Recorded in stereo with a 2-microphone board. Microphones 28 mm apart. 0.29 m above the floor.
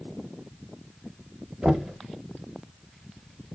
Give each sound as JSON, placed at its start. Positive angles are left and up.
{"t": 1.6, "sound": "knocking", "side_deg": -25, "distance_m": 0.8}